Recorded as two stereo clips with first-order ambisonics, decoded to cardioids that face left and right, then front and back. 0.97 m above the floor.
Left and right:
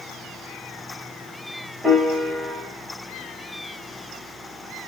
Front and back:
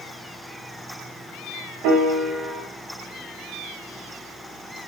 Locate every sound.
1.8 s a piano: 175° right, 1.5 m